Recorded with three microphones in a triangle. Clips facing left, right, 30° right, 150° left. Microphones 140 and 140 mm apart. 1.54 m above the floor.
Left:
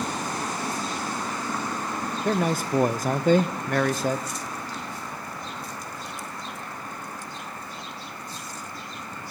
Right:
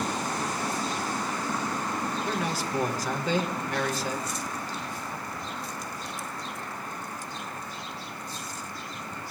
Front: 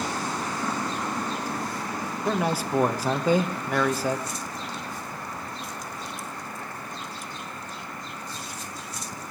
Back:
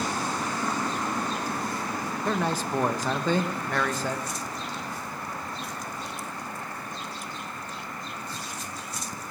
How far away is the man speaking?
About 0.8 m.